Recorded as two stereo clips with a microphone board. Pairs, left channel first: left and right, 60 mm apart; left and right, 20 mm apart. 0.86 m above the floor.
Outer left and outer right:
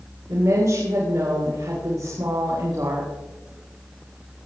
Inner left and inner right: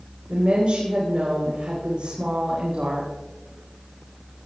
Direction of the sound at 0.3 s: 70° right (ahead or behind).